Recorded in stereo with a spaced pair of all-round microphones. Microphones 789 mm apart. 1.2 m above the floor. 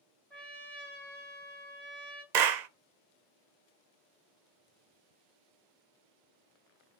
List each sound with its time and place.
0.3 s a trumpet: centre (ahead or behind), 3 m
2.3 s a clap: 65° right (ahead or behind), 0.7 m